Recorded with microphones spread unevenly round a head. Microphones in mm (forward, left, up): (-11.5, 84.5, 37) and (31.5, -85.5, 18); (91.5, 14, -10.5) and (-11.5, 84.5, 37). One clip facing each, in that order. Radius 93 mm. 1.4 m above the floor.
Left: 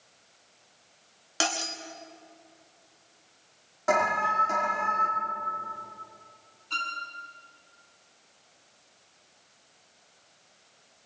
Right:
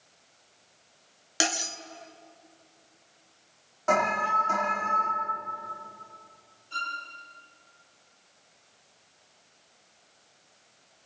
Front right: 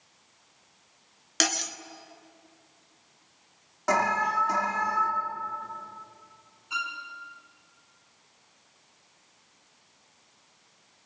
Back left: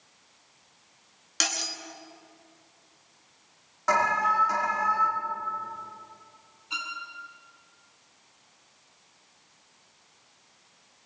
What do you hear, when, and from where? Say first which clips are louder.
1.4 s cutlery clinking: even, front right 5 dB; 5° right, 1.1 m
3.9 s an alarm: even, back left 1 dB; 20° left, 5 m
6.7 s a violin: even, front right 3 dB; 90° left, 6 m